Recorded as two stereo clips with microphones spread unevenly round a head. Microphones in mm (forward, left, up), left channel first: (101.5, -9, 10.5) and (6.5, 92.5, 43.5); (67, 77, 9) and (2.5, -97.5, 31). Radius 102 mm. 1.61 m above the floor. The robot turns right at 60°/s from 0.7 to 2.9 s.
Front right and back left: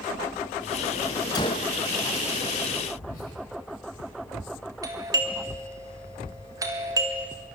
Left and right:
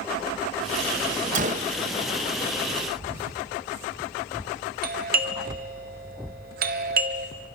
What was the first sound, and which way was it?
A gunshot, 120° right.